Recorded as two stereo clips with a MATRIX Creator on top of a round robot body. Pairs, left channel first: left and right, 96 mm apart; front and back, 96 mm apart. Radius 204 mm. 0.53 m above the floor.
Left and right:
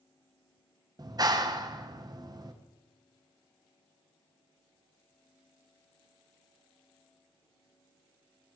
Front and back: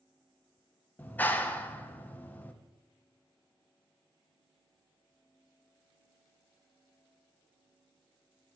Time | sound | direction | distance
1.0 | a clap | 65° right | 1.1 m